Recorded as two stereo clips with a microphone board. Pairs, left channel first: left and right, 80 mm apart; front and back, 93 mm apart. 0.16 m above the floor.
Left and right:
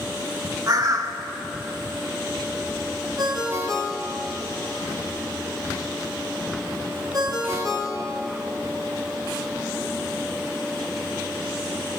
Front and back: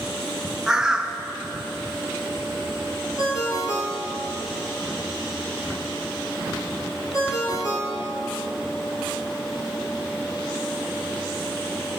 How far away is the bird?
About 0.7 m.